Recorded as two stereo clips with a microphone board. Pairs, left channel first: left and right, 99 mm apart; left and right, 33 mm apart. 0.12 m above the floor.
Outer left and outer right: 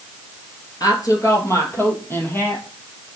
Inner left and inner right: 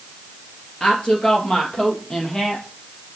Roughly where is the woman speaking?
Left.